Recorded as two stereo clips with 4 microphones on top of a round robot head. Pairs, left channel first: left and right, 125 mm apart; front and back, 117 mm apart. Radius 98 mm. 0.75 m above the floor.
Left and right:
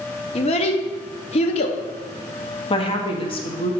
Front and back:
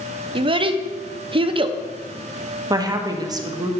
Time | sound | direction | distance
0.3 | a child speaking | 135° left | 0.6 m
2.7 | a woman speaking | 130° left | 0.8 m